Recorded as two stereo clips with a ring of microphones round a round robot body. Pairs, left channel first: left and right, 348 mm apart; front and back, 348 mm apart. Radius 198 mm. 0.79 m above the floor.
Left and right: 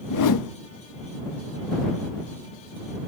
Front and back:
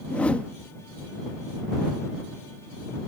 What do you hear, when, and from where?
0.1 s a whoosh: 85° left